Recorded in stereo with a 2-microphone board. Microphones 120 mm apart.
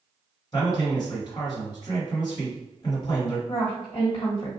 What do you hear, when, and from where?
0.5 s a man speaking: 35° left (ahead or behind), 1.4 m
3.5 s a woman speaking: 35° left (ahead or behind), 1.5 m